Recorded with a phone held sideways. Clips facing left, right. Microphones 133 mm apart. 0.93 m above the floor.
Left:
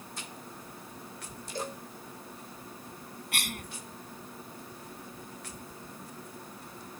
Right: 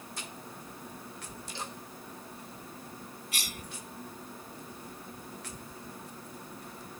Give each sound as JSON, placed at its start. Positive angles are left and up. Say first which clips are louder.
{"t": 1.6, "sound": "a cowbell", "louder": "left 7 dB", "side_deg": 45}
{"t": 3.3, "sound": "a cough", "louder": "left 6 dB", "side_deg": 60}